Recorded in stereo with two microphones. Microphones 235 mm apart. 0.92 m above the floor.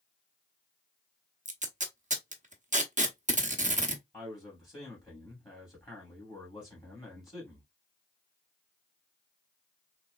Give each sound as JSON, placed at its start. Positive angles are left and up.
{"t": 1.4, "sound": "tape being pulled", "side_deg": -30, "distance_m": 0.8}
{"t": 4.1, "sound": "a man speaking", "side_deg": 20, "distance_m": 2.5}